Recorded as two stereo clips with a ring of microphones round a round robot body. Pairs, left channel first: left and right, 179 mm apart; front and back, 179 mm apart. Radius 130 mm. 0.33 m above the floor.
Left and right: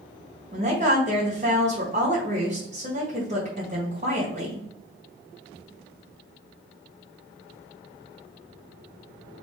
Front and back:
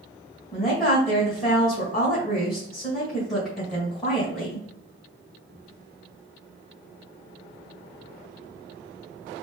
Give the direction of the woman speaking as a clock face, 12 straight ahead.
3 o'clock.